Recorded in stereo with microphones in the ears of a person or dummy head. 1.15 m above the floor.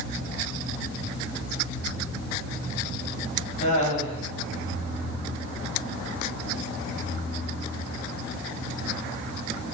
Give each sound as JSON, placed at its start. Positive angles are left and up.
{"t": 3.6, "sound": "laughter", "side_deg": 35, "distance_m": 1.6}